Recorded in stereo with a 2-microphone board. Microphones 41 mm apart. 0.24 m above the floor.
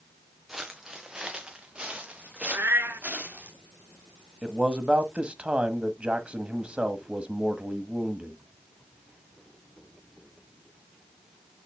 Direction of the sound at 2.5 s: 85° right.